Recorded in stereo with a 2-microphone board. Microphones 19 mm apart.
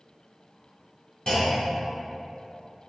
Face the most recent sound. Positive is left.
turn(degrees=35)  # may be behind; listen again after turning